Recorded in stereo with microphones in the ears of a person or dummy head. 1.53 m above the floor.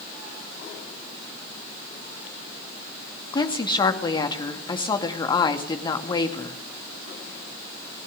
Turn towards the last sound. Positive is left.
turn(degrees=25)  # may be behind; listen again after turning